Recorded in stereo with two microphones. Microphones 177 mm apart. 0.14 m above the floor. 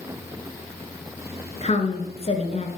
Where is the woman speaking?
40° left (ahead or behind), 1.6 m.